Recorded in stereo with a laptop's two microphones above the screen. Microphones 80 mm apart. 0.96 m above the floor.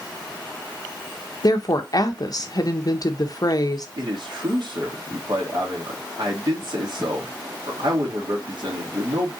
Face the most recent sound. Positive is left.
turn(degrees=-65)  # may be behind; listen again after turning